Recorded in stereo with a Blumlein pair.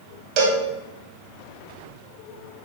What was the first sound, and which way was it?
A cowbell, 40° right.